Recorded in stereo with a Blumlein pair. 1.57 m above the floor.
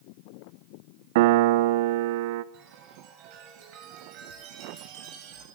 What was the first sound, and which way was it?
A piano, 50° right.